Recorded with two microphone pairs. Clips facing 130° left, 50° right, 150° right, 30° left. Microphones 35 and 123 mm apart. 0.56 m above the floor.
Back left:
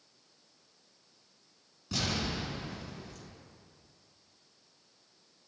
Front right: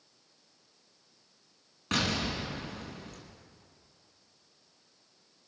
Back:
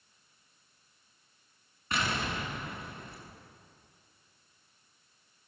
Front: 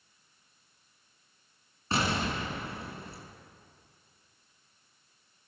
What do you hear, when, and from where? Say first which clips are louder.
1.9 s an explosion: front right 3 dB, front 3 dB; 25° right, 4.5 m